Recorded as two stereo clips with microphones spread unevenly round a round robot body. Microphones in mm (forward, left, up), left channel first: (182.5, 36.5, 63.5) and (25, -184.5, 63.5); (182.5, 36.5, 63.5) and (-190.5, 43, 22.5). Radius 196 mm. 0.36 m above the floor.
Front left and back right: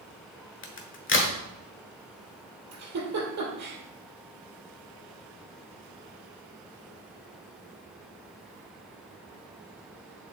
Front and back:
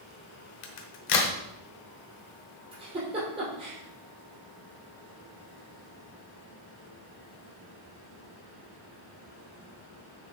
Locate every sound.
0.6 s a crack: 15° left, 1.2 m
2.7 s a giggle: 100° right, 2.5 m